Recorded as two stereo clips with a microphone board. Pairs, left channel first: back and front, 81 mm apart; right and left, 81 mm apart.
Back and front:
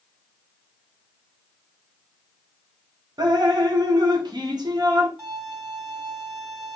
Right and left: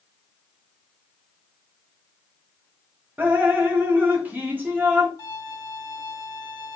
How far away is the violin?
About 1.2 m.